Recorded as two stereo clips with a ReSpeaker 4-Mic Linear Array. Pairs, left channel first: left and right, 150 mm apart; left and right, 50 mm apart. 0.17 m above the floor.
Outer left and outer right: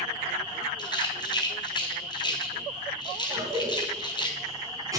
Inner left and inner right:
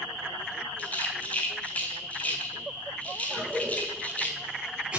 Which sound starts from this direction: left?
A rattle, at 0.8 s.